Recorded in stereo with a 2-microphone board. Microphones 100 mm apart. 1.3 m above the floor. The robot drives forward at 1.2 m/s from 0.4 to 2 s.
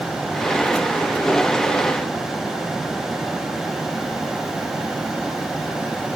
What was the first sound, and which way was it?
Only background noise.